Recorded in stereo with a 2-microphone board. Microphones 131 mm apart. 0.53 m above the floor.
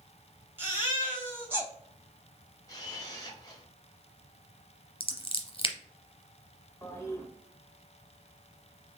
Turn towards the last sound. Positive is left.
turn(degrees=20)  # may be behind; listen again after turning